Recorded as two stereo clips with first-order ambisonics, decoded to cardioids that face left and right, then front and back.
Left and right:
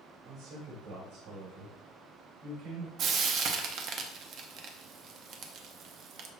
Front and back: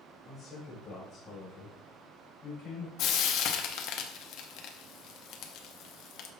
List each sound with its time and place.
0.2 s a man speaking: 100° right, 4 m; by 2.9 s 80° right, 6.5 m
3.0 s frying: 40° right, 0.9 m